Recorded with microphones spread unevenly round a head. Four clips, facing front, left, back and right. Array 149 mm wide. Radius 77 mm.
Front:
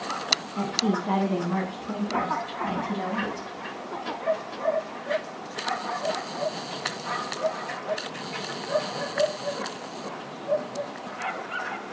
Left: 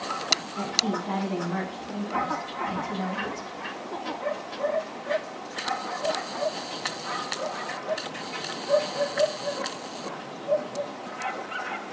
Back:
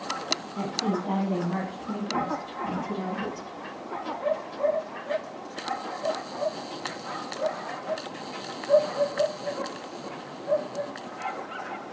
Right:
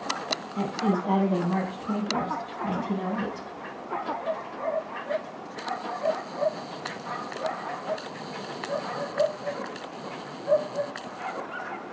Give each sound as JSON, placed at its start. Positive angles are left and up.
{"t": 0.6, "sound": "a woman speaking", "azimuth_deg": -125, "distance_m": 6.5}